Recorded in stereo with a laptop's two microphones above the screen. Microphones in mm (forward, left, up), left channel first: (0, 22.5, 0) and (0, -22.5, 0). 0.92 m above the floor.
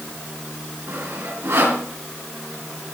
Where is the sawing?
75° right (ahead or behind), 4.5 m.